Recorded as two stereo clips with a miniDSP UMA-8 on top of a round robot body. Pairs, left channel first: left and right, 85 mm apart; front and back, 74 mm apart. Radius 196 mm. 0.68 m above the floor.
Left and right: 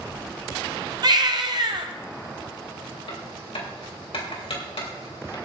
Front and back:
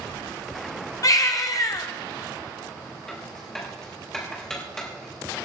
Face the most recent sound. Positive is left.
turn(degrees=80)